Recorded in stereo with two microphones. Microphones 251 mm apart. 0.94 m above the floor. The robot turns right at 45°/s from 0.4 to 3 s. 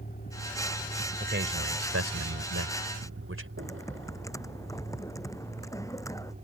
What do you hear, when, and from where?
0.0 s a vehicle: 35° left (ahead or behind); by 6.4 s 35° right (ahead or behind)
1.2 s a man speaking: 140° right; by 3.5 s 60° right
3.6 s typing on a keyboard: 10° left (ahead or behind)